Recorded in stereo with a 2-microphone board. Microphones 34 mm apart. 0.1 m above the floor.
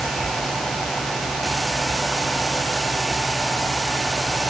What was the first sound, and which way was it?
Only background noise.